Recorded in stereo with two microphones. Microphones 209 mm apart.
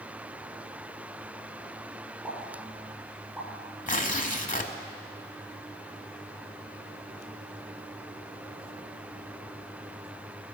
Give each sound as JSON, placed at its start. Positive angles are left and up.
{"t": 2.2, "sound": "a pop", "side_deg": -5, "distance_m": 3.0}
{"t": 3.9, "sound": "tearing paper", "side_deg": 40, "distance_m": 0.7}